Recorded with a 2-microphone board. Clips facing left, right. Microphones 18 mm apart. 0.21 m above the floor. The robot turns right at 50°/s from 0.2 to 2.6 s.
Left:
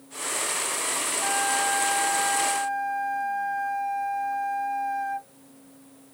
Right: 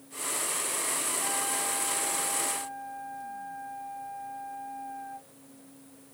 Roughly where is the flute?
Ahead left.